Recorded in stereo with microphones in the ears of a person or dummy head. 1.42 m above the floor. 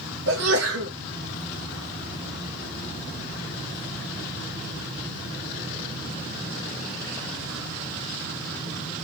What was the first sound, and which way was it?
A sneeze, 70° right (ahead or behind).